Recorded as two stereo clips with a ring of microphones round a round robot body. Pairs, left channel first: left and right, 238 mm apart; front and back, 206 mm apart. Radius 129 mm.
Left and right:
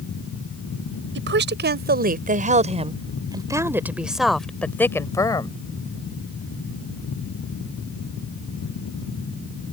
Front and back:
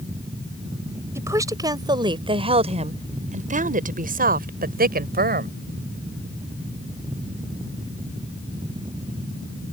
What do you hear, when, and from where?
1.1 s a woman speaking: 105° right; by 5.6 s 160° left